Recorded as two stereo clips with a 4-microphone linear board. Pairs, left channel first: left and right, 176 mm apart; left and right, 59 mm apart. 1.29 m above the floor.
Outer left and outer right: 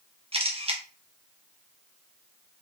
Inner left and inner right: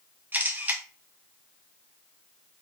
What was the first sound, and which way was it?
A camera shutter, 35° right (ahead or behind).